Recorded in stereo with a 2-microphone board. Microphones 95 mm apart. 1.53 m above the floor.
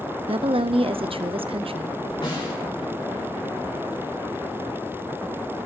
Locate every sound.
0.3 s a woman speaking: 75° right (ahead or behind), 0.7 m
2.2 s a snare drum: 60° left (ahead or behind), 4.5 m